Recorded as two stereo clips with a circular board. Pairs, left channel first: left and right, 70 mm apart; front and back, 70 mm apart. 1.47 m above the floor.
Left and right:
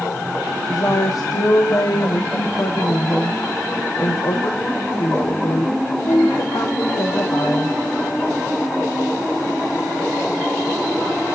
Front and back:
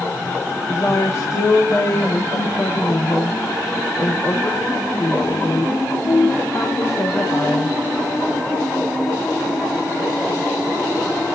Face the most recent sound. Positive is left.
turn(degrees=50)